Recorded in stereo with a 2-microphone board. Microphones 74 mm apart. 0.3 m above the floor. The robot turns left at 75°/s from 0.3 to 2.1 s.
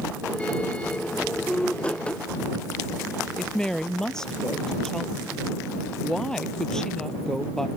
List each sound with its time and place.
3.4 s a woman speaking: 5° left (ahead or behind)